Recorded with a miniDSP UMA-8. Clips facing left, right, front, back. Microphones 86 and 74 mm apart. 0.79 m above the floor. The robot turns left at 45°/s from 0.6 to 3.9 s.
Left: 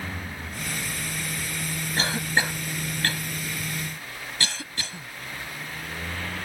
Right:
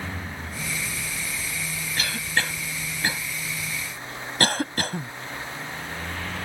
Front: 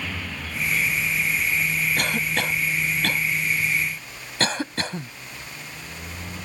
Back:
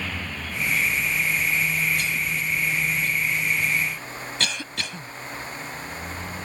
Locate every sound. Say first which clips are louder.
2.0 s a cough: left 2 dB, front 2 dB; 35° left; by 5.1 s 55° right